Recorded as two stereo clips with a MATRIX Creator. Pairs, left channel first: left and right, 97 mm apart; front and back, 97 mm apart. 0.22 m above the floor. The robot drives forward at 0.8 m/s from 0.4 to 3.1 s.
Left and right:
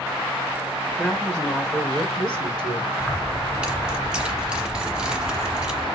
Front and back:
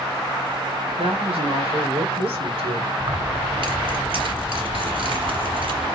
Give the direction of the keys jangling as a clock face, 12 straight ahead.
6 o'clock.